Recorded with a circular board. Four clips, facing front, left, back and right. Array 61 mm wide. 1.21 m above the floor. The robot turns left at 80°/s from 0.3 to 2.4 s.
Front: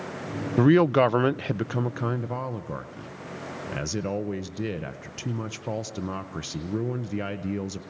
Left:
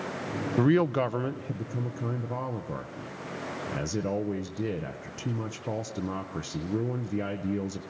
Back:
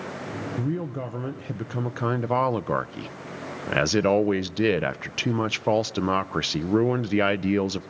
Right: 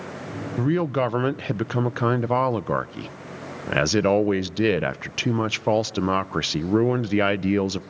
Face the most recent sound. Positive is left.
turn(degrees=-130)